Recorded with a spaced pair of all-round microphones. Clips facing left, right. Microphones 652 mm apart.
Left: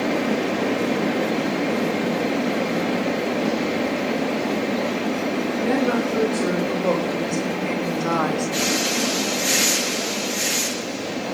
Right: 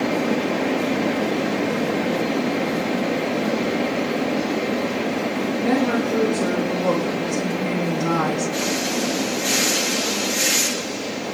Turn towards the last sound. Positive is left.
turn(degrees=-65)  # may be behind; listen again after turning